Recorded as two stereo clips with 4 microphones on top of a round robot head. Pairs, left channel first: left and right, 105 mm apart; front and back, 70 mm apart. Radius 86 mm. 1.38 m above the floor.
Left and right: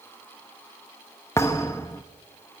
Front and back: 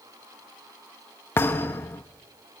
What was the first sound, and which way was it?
A thud, 35° left.